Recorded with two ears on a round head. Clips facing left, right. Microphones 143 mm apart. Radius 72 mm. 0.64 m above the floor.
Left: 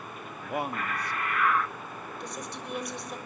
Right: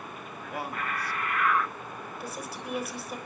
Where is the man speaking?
20° left (ahead or behind), 0.9 m.